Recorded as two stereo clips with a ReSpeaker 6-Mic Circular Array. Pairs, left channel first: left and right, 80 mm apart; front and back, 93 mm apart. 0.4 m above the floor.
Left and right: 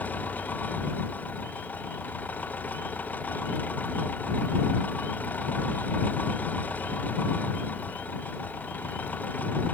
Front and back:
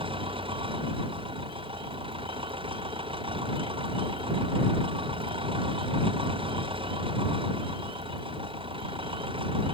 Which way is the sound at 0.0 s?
160° left.